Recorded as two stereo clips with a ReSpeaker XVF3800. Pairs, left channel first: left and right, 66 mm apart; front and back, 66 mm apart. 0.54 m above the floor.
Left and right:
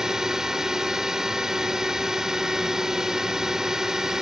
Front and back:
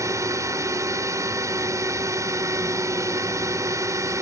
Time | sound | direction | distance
0.0 | a drone | 170° right | ?